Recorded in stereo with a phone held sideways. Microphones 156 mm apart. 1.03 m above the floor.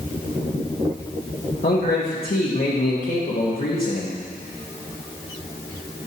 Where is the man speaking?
65° left (ahead or behind), 1.4 m.